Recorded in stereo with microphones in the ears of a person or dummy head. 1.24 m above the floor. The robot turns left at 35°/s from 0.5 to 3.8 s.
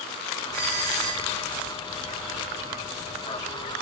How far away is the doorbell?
About 4.5 m.